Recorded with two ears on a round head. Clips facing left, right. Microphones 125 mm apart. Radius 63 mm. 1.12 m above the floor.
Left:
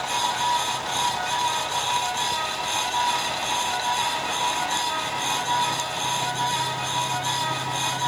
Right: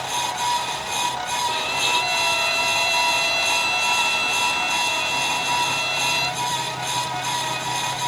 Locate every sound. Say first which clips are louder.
1.5 s a violin: right 1 dB; 85° right